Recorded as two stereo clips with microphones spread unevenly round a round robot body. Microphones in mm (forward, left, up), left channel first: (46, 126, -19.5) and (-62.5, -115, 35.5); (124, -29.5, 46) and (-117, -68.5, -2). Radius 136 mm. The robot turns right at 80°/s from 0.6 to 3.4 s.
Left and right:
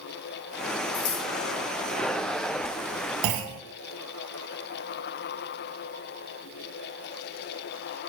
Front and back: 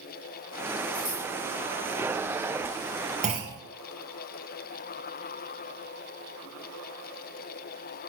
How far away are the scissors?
About 4 m.